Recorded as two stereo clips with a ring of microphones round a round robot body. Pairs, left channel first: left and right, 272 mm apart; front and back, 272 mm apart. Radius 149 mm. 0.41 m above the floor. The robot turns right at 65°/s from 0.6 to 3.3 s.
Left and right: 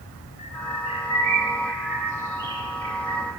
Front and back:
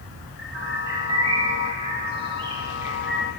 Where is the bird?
100° left, 1.3 m; by 3.3 s 85° right, 1.3 m.